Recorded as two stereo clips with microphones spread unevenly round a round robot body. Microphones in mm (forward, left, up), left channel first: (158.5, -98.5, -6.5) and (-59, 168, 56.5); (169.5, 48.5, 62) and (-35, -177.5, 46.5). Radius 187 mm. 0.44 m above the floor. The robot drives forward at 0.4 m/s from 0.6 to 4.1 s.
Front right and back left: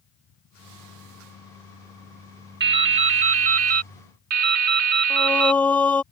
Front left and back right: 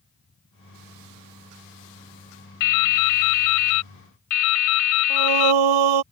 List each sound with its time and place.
2.6 s dripping: 65° left; by 5.6 s 85° left
5.1 s singing: 140° right